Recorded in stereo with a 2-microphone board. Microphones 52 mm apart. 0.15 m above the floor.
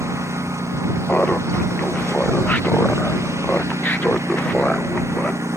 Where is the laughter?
35° left (ahead or behind).